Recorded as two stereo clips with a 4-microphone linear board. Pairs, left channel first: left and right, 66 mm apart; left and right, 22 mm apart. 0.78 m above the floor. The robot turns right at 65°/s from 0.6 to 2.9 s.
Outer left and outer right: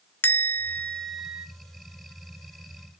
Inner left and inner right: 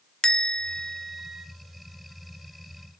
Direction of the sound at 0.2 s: 145° left.